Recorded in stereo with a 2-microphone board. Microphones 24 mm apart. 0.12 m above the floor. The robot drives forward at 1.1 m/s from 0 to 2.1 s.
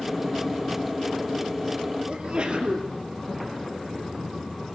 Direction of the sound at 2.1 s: 45° right (ahead or behind).